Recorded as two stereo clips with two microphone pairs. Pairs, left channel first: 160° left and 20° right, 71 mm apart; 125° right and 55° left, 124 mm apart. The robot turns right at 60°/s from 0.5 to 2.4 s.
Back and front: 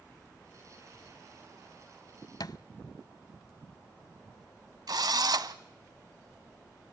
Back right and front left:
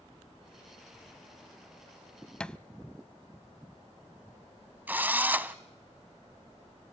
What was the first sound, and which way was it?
A thud, 150° left.